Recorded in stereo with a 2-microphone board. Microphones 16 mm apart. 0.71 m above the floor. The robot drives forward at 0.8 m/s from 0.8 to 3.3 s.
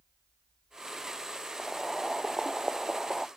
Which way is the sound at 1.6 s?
5° right (ahead or behind).